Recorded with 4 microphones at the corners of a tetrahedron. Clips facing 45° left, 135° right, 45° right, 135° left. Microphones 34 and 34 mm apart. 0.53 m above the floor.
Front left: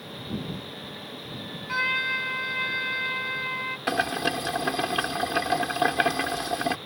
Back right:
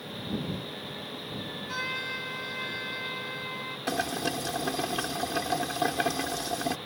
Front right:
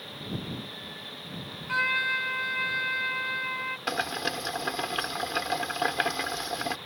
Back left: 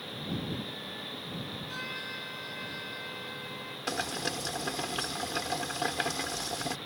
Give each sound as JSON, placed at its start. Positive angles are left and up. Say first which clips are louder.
{"t": 1.7, "sound": "a trumpet", "louder": "front left 9 dB, front right 16 dB", "azimuth_deg": -5}
{"t": 3.9, "sound": "boiling", "louder": "front left 4 dB, front right 2 dB", "azimuth_deg": 10}